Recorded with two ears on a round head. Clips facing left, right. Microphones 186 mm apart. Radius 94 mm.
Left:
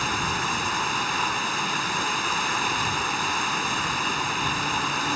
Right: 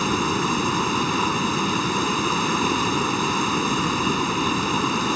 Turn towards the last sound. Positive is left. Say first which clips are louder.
# right 8 dB
turn(degrees=-80)